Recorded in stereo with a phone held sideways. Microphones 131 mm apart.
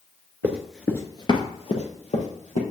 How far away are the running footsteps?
About 1.2 m.